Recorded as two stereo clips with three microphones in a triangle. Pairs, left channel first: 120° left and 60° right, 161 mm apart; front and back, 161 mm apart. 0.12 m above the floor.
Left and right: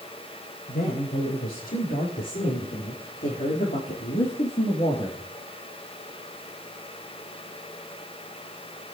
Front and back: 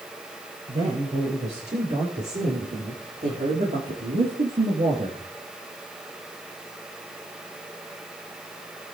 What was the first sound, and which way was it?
A man speaking, 135° left.